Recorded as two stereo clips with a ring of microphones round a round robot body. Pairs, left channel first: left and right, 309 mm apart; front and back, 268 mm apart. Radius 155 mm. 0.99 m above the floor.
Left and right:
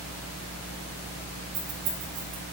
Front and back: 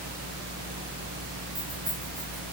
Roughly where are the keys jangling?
Right.